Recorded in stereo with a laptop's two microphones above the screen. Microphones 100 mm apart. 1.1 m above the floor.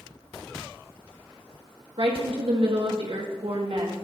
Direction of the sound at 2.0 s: 65° right (ahead or behind).